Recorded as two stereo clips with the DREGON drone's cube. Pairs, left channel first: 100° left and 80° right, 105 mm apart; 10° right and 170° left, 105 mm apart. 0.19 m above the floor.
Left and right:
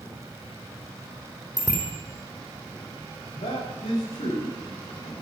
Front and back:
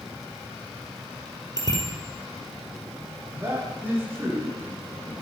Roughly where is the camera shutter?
I don't hear a camera shutter.